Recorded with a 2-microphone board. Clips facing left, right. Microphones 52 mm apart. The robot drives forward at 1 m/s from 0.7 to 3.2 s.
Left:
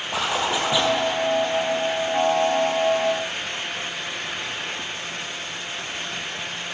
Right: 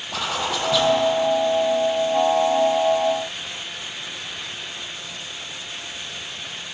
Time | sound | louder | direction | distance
0.1 | a zipper | left 2 dB | 15° left (ahead or behind) | 2.5 m